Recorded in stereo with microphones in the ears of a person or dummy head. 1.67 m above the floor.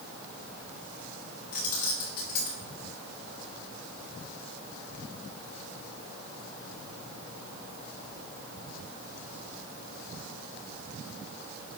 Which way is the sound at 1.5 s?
55° left (ahead or behind).